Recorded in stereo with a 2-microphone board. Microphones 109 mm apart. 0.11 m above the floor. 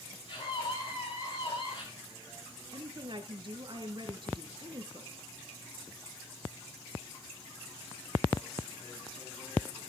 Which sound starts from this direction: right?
A woman speaking, at 2.7 s.